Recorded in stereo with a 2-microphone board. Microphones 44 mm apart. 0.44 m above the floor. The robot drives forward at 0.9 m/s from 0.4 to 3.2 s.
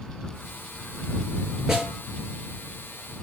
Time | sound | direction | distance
1.7 | a snare drum | 10° right (ahead or behind) | 6.5 m